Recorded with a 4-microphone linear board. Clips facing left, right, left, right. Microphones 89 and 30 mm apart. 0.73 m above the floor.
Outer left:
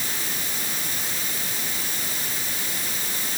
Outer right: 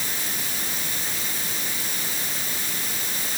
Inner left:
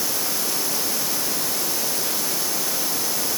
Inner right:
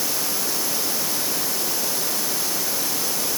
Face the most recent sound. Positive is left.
No sound to turn to.